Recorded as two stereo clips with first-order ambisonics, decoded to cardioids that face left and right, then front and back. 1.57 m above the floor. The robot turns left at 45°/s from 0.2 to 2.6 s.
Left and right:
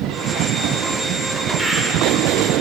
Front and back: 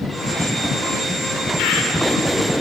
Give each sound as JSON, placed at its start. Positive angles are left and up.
{"t": 1.6, "sound": "a bird", "azimuth_deg": -15, "distance_m": 0.5}